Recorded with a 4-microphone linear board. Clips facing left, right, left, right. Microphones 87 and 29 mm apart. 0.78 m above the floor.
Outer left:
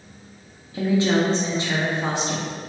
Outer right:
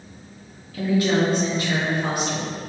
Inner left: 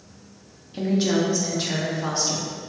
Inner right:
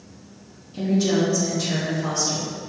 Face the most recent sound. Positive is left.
turn(degrees=25)  # may be behind; listen again after turning